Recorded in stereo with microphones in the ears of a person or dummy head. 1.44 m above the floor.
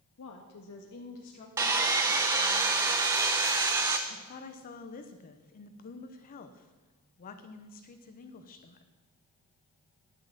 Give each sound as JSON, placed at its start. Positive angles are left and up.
{"t": 0.2, "sound": "a woman speaking", "side_deg": 70, "distance_m": 0.9}
{"t": 1.6, "sound": "sawing", "side_deg": -15, "distance_m": 0.6}
{"t": 4.1, "sound": "a woman speaking", "side_deg": 40, "distance_m": 0.8}